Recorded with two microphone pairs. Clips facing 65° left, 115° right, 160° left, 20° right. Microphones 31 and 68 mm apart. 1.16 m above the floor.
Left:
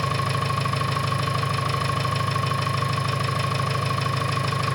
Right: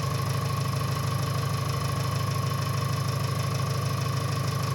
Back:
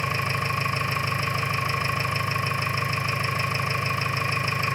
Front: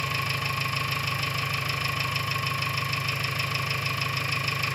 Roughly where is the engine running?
Left.